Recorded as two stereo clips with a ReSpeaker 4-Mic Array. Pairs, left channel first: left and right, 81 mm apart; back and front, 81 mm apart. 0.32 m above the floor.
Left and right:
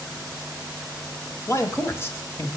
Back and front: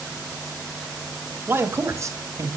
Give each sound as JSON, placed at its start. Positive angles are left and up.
{"t": 1.5, "sound": "a man speaking", "azimuth_deg": 55, "distance_m": 1.9}